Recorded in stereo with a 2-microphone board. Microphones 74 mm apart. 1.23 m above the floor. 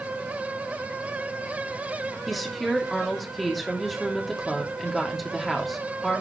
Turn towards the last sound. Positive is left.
turn(degrees=0)  # may be behind; listen again after turning